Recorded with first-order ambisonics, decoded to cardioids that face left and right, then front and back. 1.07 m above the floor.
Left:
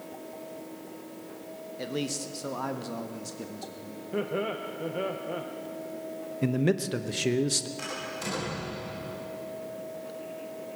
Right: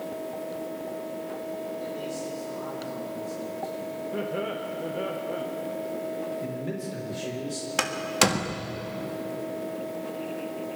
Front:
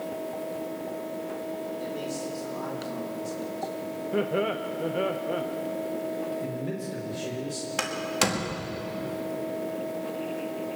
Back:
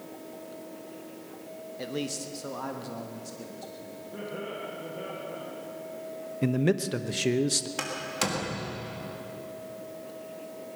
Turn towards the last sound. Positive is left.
turn(degrees=-75)